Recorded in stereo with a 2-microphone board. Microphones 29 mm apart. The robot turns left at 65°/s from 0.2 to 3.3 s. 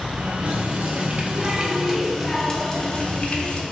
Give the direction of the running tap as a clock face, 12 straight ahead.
2 o'clock.